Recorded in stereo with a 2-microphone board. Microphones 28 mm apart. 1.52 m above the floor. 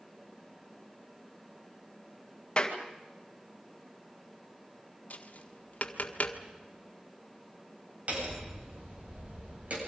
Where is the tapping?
55° left (ahead or behind), 1.6 m.